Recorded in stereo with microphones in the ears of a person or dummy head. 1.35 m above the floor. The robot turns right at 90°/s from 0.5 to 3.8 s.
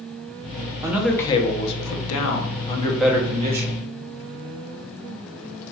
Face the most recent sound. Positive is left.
turn(degrees=-110)